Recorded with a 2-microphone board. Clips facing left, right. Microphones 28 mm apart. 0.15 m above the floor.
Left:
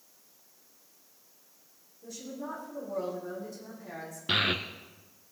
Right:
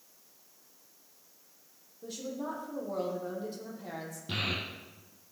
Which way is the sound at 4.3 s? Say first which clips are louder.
Left 7 dB; 55° left (ahead or behind).